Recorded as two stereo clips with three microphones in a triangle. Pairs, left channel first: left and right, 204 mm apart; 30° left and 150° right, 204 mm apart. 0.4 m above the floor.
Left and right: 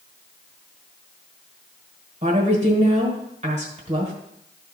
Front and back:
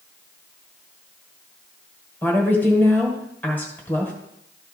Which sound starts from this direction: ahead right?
A woman speaking, at 2.2 s.